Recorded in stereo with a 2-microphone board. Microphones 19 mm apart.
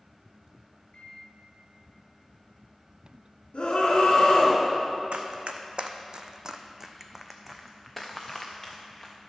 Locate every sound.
0.9 s a microwave: 55° left (ahead or behind), 1.8 m
3.5 s a scream: 55° left (ahead or behind), 1.9 m
5.1 s running footsteps: 75° right (ahead or behind), 0.9 m; by 9.1 s 20° left (ahead or behind), 1.8 m